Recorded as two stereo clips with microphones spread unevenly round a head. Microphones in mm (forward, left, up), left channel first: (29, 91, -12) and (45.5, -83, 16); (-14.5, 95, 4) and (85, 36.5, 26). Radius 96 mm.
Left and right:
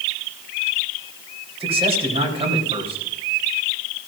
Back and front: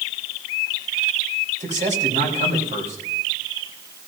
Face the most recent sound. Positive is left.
turn(degrees=-25)